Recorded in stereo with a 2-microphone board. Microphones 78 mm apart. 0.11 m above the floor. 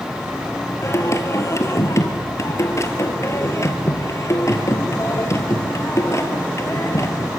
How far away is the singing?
About 1.8 m.